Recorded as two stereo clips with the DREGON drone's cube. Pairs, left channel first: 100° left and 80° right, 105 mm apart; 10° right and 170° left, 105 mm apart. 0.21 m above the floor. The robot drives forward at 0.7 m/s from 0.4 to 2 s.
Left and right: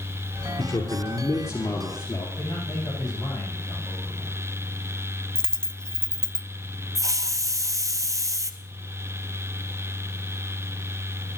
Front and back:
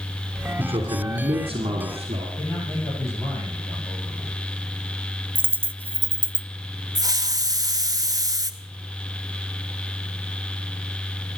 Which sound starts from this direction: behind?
A dropped coin, at 5.3 s.